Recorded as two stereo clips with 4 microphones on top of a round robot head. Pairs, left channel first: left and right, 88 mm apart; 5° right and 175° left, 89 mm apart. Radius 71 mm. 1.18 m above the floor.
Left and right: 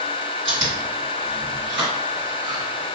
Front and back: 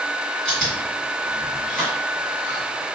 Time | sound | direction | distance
0.5 | chewing | 90° right | 1.7 m